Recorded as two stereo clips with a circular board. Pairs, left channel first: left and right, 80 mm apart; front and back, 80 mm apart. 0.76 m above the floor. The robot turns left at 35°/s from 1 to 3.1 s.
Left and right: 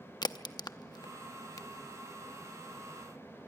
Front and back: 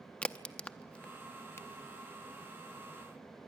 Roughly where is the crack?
Left.